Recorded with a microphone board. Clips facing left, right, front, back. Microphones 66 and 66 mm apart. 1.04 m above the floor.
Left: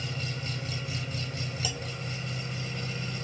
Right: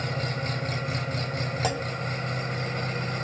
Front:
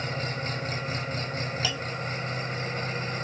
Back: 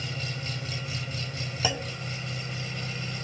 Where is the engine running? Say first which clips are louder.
Right 6 dB, front 4 dB; 50° right, 2.5 m.